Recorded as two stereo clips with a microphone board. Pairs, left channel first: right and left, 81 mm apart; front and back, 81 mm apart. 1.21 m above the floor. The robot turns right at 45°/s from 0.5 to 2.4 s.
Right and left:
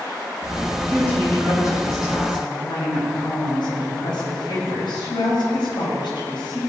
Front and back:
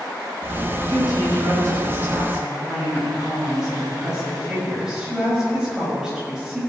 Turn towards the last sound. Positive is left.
turn(degrees=-100)